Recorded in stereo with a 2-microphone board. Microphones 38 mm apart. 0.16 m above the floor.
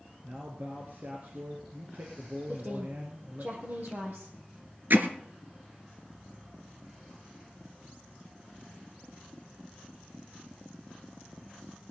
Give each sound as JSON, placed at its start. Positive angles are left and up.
{"t": 0.2, "sound": "a man speaking", "side_deg": -50, "distance_m": 2.5}
{"t": 2.5, "sound": "a woman speaking", "side_deg": -55, "distance_m": 5.0}
{"t": 4.9, "sound": "hammering", "side_deg": -60, "distance_m": 1.9}